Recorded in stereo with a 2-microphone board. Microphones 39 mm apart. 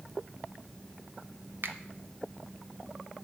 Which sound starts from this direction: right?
A finger snap, at 1.6 s.